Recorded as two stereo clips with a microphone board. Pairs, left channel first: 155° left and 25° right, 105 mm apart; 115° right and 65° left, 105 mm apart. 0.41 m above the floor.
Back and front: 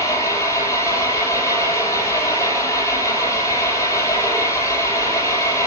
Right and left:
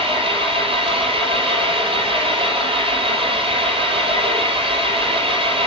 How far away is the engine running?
About 6.5 m.